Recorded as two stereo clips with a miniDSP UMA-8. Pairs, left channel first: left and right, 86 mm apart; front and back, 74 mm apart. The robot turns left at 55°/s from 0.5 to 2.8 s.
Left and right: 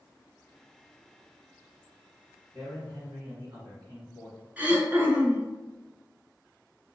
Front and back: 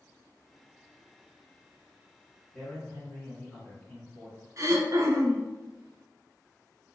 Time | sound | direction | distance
2.5 | a man speaking | 70° right | 1.7 m
4.6 | throat clearing | 155° right | 0.8 m